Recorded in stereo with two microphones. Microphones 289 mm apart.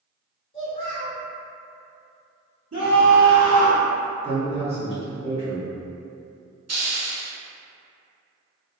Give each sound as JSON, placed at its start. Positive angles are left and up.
{"t": 0.5, "sound": "a child speaking", "side_deg": 40, "distance_m": 0.7}
{"t": 2.7, "sound": "a scream", "side_deg": -50, "distance_m": 1.2}
{"t": 4.2, "sound": "a man speaking", "side_deg": -20, "distance_m": 1.6}
{"t": 6.7, "sound": "a hiss", "side_deg": -60, "distance_m": 0.6}